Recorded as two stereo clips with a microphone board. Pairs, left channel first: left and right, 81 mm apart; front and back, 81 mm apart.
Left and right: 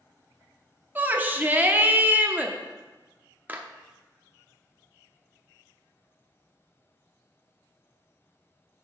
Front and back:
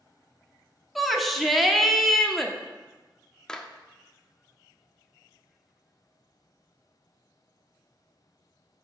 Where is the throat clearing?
No throat clearing in this recording.